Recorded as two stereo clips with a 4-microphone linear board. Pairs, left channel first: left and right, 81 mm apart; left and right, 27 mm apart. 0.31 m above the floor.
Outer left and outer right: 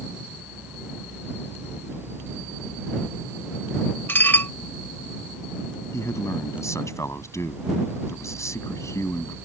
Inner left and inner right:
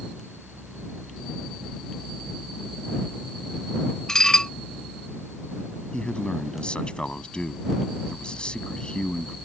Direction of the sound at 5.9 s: 40° left (ahead or behind).